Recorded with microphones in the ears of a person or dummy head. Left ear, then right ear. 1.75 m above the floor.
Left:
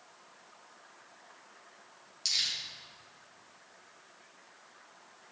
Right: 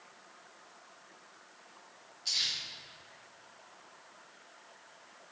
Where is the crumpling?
80° left, 2.5 m.